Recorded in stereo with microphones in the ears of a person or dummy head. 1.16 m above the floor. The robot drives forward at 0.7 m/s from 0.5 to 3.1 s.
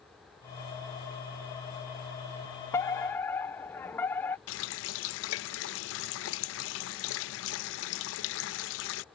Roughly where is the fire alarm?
Centre.